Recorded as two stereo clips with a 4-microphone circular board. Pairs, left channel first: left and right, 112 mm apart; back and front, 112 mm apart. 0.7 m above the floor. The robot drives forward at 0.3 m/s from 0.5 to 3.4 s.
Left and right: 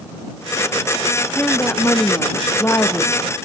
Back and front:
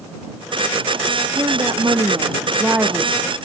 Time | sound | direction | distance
1.4 | a woman speaking | 20° left | 0.9 m